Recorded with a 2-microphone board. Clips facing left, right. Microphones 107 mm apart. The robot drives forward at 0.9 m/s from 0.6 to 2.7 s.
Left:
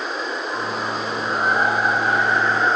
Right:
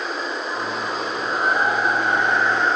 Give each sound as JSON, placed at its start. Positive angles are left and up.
{"t": 0.0, "sound": "running water", "side_deg": 0, "distance_m": 5.0}